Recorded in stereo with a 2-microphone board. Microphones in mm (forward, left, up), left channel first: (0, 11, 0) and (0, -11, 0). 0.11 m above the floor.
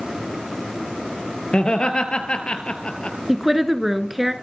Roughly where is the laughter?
Left.